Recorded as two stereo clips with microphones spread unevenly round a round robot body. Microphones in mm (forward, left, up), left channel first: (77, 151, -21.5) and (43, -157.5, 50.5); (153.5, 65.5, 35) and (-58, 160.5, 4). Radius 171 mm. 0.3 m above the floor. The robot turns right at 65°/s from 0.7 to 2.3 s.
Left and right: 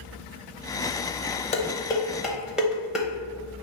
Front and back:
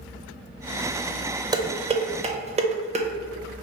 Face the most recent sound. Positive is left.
turn(degrees=155)